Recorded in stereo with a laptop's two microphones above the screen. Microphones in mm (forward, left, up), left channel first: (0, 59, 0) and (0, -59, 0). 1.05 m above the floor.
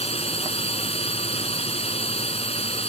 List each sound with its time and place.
0.0 s a drone: 65° left (ahead or behind)